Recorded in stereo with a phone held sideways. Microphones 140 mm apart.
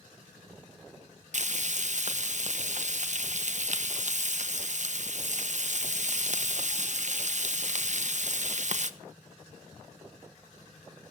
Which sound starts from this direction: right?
Frying, at 1.3 s.